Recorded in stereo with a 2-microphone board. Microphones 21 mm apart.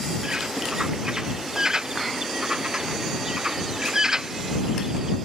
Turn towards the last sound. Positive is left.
turn(degrees=-35)  # may be behind; listen again after turning